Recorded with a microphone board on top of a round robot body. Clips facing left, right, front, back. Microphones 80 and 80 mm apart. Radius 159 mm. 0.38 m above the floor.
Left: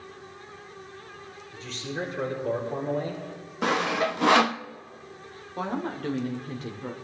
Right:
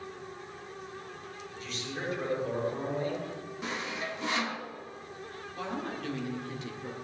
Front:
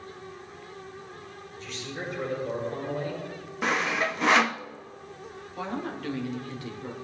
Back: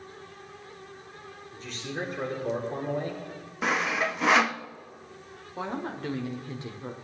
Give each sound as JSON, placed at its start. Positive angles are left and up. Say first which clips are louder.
{"t": 1.5, "sound": "a man speaking", "louder": "left 6 dB, back 2 dB", "azimuth_deg": 140, "distance_m": 9.5}
{"t": 3.6, "sound": "sawing", "louder": "left 12 dB, even", "azimuth_deg": 90, "distance_m": 0.6}
{"t": 5.6, "sound": "a woman speaking", "louder": "left 6 dB, even", "azimuth_deg": 125, "distance_m": 1.7}